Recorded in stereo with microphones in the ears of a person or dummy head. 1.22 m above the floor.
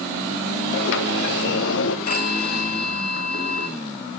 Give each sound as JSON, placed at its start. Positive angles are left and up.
{"t": 0.7, "sound": "a sliding door", "side_deg": 70, "distance_m": 0.7}
{"t": 2.1, "sound": "a phone ringing", "side_deg": 55, "distance_m": 1.2}